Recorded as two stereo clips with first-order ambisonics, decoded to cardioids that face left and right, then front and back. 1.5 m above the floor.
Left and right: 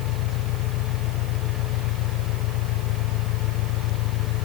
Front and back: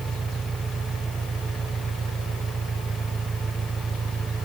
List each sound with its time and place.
0.0 s an engine running: 110° left